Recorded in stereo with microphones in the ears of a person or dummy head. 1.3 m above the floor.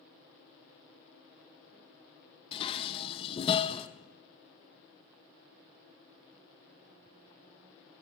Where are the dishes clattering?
25° left (ahead or behind), 0.8 m.